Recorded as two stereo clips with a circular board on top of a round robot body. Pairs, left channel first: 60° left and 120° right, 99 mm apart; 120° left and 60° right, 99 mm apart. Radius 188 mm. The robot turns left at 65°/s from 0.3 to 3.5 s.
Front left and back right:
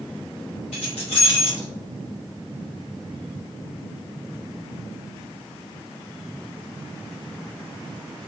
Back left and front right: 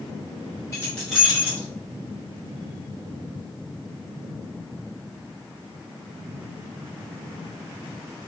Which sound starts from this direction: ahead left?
Keys jangling, at 0.7 s.